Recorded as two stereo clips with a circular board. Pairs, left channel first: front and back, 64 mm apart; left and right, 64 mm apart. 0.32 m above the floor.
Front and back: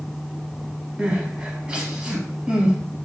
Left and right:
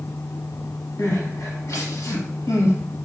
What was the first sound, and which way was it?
Crying, 110° left.